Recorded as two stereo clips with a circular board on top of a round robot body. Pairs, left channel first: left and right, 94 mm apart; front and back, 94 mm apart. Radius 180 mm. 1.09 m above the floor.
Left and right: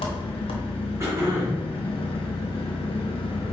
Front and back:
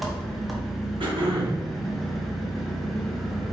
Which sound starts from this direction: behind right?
Throat clearing, at 1.0 s.